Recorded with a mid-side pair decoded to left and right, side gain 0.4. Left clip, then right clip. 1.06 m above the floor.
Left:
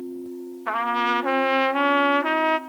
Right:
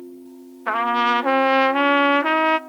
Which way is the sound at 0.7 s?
35° right.